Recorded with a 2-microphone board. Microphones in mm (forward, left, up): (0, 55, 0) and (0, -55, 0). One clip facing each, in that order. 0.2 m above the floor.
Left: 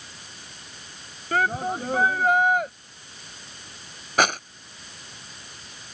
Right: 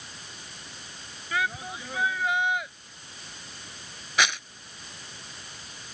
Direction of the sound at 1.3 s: 50° left (ahead or behind).